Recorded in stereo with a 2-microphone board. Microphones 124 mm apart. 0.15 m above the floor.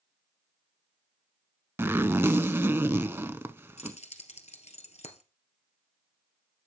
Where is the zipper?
20° right (ahead or behind), 0.6 m.